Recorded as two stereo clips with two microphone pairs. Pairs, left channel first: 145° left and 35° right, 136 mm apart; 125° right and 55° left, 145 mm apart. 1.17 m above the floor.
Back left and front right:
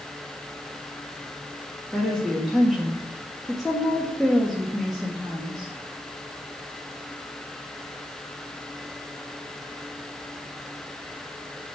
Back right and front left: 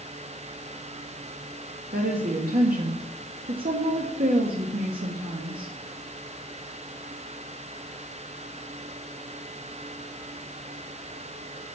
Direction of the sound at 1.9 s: 55° left.